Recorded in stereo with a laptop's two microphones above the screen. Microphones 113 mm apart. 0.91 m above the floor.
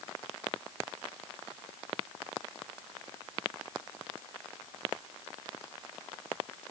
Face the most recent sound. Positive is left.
No sound to turn to.